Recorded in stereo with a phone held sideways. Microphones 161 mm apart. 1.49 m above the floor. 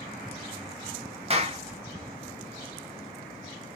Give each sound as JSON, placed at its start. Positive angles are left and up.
{"t": 1.3, "sound": "a clap", "side_deg": -40, "distance_m": 0.6}